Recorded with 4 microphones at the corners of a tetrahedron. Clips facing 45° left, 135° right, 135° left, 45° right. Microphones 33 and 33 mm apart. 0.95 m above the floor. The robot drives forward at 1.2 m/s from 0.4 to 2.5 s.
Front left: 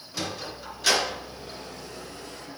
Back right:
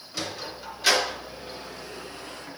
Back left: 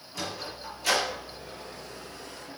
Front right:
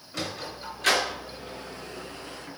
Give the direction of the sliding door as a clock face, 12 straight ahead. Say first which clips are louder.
Even, front right 2 dB; 1 o'clock.